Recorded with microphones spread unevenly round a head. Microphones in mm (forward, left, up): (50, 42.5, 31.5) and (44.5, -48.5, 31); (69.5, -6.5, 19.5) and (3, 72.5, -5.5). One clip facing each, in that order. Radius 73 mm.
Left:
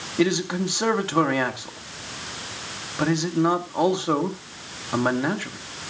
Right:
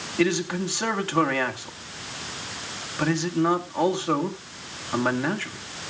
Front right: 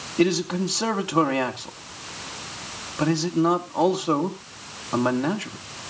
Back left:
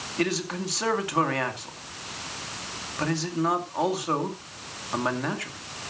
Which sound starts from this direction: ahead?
A man speaking, at 0.2 s.